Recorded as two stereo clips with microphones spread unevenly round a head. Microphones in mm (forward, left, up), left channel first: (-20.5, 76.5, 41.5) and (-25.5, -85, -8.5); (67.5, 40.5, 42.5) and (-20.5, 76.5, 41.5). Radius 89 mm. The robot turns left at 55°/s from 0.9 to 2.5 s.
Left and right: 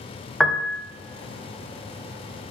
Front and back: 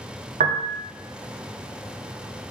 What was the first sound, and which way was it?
A piano, 170° left.